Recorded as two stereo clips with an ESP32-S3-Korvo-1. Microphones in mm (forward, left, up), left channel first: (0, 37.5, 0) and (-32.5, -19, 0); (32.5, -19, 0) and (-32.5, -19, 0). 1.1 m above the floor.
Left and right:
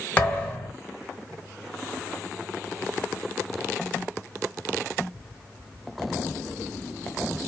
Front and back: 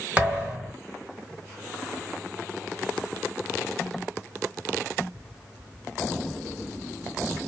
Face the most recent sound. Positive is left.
turn(degrees=115)